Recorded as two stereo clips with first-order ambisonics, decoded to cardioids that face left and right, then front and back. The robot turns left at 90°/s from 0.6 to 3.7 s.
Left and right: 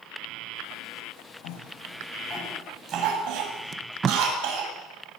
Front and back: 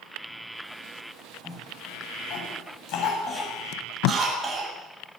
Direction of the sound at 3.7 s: 25° right.